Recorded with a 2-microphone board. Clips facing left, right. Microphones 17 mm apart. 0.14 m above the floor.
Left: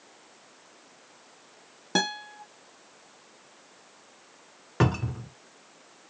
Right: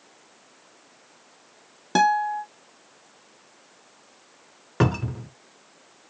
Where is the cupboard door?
5° right (ahead or behind), 0.6 m.